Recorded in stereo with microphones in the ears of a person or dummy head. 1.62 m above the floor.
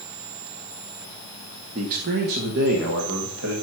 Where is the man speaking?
35° right (ahead or behind), 0.9 m; by 3.5 s 65° right (ahead or behind), 2.0 m.